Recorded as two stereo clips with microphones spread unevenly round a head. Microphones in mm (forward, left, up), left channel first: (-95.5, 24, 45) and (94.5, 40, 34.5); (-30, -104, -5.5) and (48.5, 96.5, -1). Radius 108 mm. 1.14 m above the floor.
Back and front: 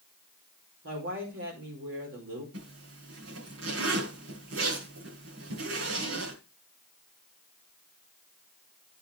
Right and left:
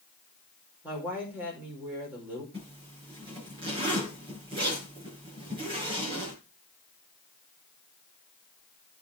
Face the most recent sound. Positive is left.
turn(degrees=0)